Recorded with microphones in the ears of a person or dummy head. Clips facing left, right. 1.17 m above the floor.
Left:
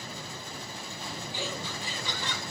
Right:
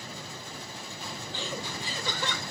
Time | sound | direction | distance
1.3 | laughter | 10° left (ahead or behind) | 0.6 m